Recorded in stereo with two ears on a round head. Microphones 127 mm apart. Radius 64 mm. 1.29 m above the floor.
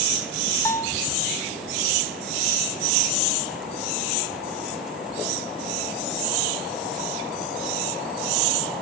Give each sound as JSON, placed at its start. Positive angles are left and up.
{"t": 0.7, "sound": "a bell", "side_deg": 20, "distance_m": 0.5}